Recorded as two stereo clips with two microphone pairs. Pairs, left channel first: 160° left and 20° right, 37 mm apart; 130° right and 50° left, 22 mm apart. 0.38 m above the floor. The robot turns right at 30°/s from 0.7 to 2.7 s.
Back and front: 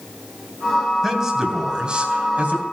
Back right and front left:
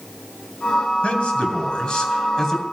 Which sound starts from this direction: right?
A man speaking, at 1.0 s.